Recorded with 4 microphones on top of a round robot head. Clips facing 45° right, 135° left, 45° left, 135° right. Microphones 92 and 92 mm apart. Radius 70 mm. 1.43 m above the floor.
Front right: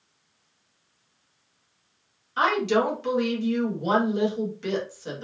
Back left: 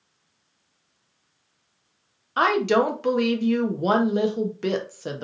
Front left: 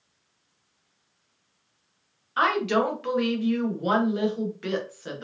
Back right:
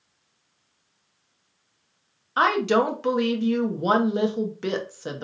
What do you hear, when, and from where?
2.4 s a woman speaking: 165° left, 1.1 m